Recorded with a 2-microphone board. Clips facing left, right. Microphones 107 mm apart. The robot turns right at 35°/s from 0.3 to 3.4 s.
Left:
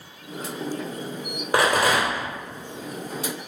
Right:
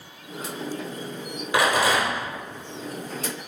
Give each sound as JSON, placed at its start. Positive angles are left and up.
{"t": 1.5, "sound": "a rattle", "side_deg": 45, "distance_m": 1.1}